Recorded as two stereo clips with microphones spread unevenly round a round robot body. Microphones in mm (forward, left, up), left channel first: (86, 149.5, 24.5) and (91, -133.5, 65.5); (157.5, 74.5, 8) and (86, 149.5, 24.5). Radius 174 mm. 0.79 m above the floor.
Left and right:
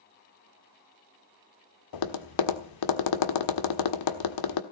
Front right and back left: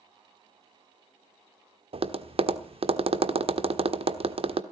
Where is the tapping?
100° left, 1.3 m.